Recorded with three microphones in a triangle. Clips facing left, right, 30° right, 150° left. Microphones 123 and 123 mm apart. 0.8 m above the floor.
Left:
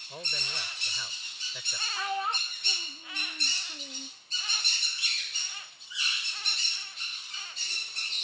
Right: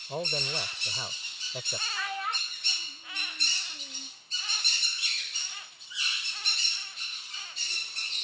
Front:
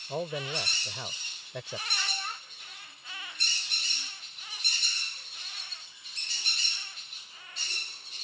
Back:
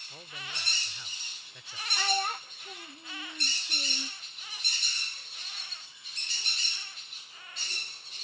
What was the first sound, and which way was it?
A man speaking, 40° right.